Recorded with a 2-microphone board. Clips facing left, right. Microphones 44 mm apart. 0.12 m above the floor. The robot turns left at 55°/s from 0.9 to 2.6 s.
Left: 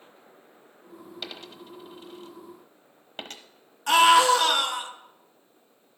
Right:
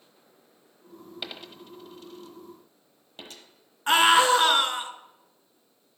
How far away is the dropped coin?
About 1.0 m.